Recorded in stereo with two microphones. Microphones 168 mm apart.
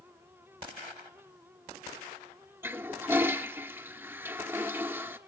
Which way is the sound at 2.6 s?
15° right (ahead or behind).